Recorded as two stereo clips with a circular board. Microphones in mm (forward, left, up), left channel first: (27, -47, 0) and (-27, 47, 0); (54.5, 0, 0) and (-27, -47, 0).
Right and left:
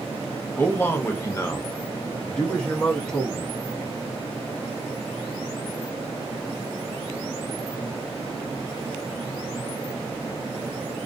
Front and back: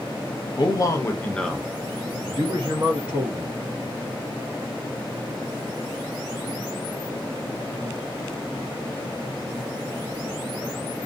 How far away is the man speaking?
About 0.7 m.